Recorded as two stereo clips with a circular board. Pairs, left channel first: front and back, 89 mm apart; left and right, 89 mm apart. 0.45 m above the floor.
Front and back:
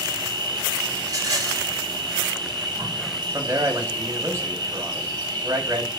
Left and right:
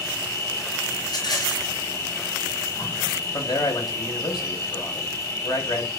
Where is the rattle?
130° left, 3.5 m.